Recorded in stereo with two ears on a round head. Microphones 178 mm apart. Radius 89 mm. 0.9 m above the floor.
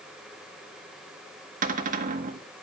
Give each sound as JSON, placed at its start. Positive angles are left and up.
{"t": 1.6, "sound": "a cupboard door", "side_deg": -40, "distance_m": 1.6}